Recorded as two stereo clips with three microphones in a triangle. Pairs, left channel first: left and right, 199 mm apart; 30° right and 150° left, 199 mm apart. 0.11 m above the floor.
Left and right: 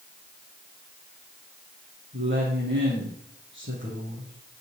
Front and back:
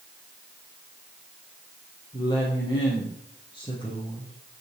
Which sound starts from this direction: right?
A woman speaking, at 2.1 s.